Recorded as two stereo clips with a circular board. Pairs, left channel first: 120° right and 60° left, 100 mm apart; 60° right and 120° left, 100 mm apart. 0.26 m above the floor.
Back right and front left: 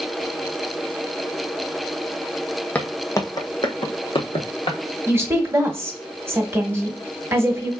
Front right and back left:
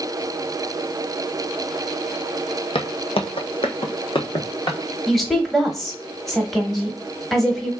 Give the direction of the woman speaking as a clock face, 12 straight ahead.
11 o'clock.